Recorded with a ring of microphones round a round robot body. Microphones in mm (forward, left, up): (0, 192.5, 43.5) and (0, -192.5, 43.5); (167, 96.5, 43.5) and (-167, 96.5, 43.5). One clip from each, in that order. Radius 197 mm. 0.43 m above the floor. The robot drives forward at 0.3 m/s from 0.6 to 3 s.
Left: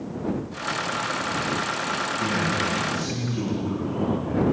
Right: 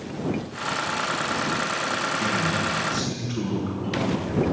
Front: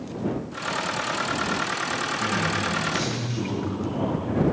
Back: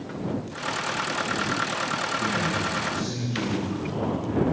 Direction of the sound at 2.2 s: 60° right.